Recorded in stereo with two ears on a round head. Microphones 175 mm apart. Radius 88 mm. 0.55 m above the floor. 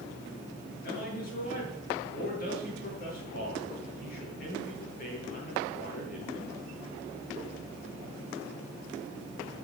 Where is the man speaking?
45° left (ahead or behind), 8.5 m.